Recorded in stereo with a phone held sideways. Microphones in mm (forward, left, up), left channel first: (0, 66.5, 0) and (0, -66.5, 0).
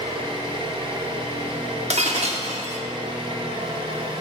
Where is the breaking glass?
55° right (ahead or behind), 1.4 m.